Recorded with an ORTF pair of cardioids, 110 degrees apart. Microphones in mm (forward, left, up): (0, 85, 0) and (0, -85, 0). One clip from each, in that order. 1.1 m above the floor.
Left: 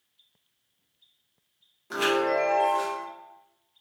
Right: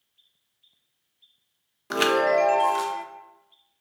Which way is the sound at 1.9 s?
45° right.